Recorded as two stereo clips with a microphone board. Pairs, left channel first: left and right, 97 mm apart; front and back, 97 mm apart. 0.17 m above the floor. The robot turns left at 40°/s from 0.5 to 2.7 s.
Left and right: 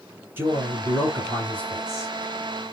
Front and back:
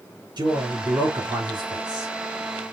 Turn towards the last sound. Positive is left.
turn(degrees=120)